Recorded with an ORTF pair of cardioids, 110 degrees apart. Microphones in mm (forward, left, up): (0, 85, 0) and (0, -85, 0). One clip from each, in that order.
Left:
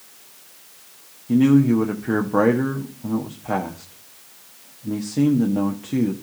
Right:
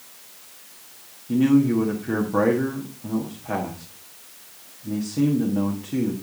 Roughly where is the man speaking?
Ahead left.